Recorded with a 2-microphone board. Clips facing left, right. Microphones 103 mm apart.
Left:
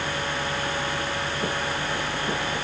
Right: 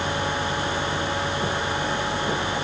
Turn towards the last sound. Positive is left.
No sound to turn to.